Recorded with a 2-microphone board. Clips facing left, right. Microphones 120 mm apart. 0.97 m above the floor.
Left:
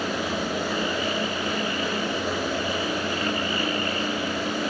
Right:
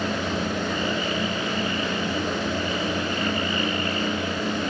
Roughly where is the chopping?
I don't hear chopping.